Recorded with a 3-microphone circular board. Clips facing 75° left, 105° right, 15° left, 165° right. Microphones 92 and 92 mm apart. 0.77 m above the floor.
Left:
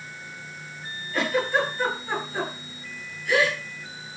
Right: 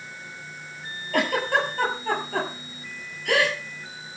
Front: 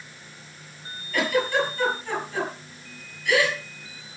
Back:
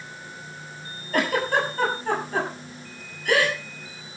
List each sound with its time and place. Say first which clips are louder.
1.1 s a giggle: right 1 dB, even; 125° right, 7.5 m